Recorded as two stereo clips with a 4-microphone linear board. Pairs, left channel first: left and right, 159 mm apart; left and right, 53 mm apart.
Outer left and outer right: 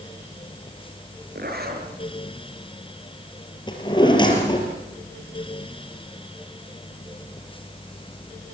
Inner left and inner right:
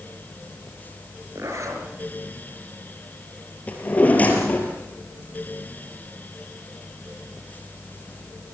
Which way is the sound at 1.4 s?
70° right (ahead or behind).